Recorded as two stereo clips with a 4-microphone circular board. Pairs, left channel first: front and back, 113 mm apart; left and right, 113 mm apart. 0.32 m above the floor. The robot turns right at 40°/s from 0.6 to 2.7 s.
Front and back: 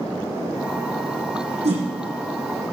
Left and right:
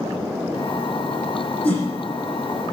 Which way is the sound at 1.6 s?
165° left.